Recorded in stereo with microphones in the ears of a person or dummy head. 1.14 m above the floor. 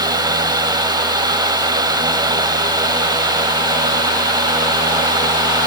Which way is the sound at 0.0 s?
25° right (ahead or behind).